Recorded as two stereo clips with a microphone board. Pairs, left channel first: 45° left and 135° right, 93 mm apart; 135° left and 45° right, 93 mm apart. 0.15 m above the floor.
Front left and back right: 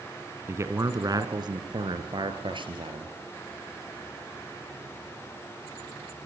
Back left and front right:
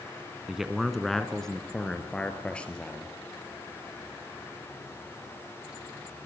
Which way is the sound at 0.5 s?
125° right.